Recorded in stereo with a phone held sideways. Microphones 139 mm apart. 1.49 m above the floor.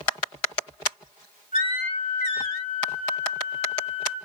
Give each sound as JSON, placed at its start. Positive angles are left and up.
{"t": 1.5, "sound": "a flute", "side_deg": 75, "distance_m": 10.0}